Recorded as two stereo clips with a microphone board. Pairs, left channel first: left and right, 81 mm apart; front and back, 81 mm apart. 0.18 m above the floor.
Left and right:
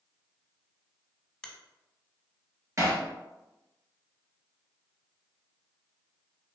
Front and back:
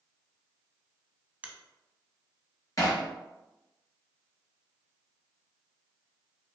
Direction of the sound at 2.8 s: 45° right.